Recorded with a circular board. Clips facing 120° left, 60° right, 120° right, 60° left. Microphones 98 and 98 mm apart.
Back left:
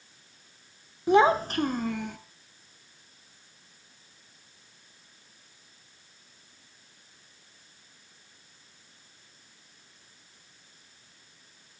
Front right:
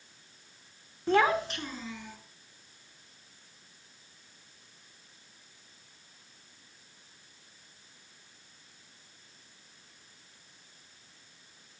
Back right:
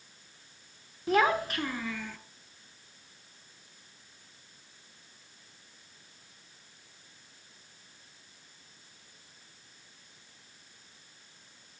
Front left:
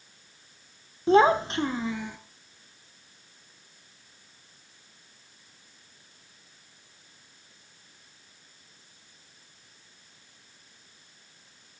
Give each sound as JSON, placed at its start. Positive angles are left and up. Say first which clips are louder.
{"t": 1.1, "sound": "a child speaking", "louder": "back left 5 dB, front left 7 dB", "azimuth_deg": 55, "distance_m": 0.8}